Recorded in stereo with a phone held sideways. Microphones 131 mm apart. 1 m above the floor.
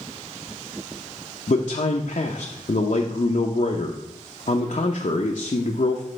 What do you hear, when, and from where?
1.5 s a man speaking: 65° left (ahead or behind), 0.7 m